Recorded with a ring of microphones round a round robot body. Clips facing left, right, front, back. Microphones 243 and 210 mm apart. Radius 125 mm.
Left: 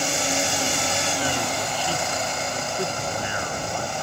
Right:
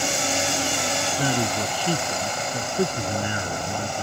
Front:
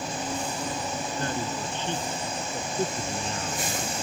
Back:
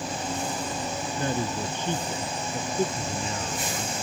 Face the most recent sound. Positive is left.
turn(degrees=-90)